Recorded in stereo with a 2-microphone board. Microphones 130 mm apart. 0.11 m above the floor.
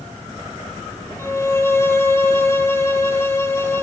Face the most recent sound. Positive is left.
turn(degrees=20)  # may be behind; listen again after turning